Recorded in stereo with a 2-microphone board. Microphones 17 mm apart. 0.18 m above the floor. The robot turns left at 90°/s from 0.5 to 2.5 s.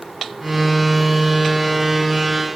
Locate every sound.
Only background noise.